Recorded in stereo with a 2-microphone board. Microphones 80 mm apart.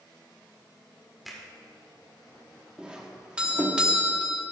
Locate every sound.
1.2 s a finger snap: centre (ahead or behind), 1.7 m
2.8 s a doorbell: 15° right (ahead or behind), 1.1 m